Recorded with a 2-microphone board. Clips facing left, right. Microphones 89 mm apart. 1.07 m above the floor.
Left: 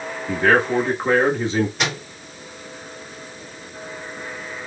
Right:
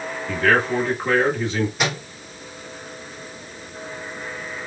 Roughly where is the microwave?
Centre.